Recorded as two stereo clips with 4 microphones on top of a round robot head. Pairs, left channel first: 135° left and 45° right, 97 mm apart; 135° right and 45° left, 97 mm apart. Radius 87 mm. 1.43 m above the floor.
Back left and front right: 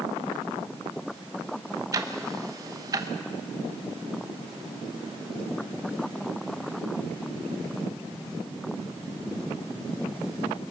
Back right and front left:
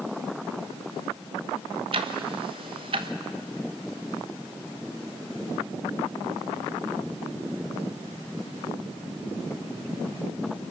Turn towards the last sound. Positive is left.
turn(degrees=10)